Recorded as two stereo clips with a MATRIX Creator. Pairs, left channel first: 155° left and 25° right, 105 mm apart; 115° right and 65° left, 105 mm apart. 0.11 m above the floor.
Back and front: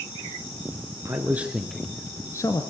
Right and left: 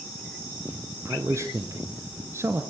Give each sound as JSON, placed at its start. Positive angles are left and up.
{"t": 1.1, "sound": "a man speaking", "azimuth_deg": 20, "distance_m": 1.6}